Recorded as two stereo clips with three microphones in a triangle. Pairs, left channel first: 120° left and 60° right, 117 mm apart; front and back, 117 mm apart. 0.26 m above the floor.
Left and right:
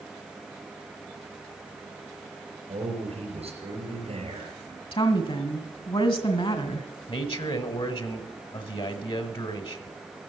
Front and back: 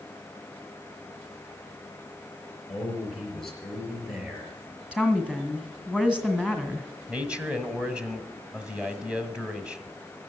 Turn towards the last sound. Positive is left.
turn(degrees=100)